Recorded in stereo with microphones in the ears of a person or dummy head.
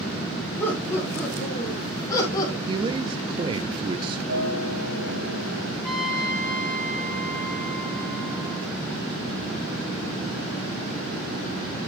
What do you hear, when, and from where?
0.6 s laughter: 10° left (ahead or behind), 4.5 m; by 2.6 s 25° left (ahead or behind), 3.5 m
2.7 s a man speaking: 30° right (ahead or behind), 0.7 m
4.3 s a guitar: 80° right, 4.5 m
5.8 s a trumpet: centre (ahead or behind), 3 m